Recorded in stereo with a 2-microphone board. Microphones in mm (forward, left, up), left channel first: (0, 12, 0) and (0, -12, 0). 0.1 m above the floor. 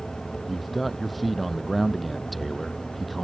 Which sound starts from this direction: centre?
A man speaking, at 0.5 s.